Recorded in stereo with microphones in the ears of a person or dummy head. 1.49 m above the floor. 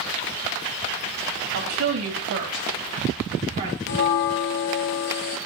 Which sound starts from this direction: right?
A woman speaking, at 1.5 s.